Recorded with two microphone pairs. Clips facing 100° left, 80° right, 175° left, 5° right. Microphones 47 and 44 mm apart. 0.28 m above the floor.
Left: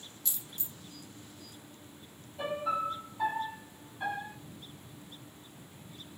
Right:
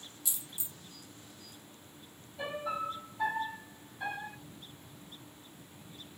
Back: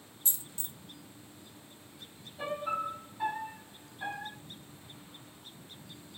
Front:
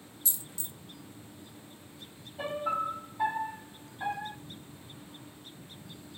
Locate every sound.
0.2 s a dropped coin: 155° right, 0.6 m
2.4 s a piano: 25° left, 1.9 m